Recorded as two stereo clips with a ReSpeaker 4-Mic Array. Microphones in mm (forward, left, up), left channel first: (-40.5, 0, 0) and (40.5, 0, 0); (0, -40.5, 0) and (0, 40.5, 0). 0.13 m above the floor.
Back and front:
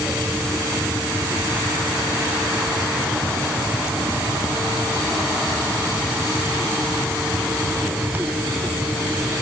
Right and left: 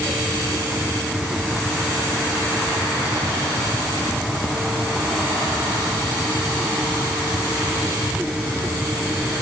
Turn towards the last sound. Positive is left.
No sound to turn to.